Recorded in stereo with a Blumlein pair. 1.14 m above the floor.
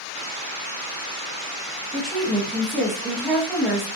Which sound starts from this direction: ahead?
A woman speaking, at 1.9 s.